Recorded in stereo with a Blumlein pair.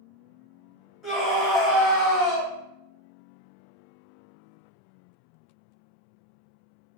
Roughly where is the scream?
Ahead.